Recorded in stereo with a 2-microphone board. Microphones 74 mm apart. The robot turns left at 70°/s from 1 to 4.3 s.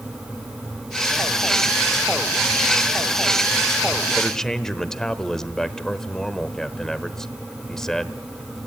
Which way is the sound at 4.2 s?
15° left (ahead or behind).